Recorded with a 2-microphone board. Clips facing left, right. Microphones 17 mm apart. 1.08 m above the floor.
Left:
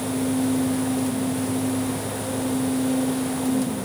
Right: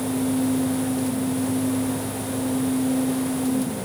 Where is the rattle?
No rattle in this recording.